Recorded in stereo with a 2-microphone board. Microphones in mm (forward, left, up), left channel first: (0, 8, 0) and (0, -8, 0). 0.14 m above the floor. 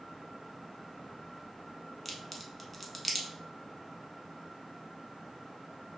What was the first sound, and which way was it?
A crack, 10° left (ahead or behind).